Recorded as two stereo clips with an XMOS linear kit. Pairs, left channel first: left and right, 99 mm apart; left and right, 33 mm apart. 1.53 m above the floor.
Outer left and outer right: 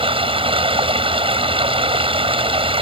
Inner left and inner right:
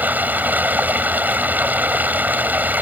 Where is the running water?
75° right (ahead or behind).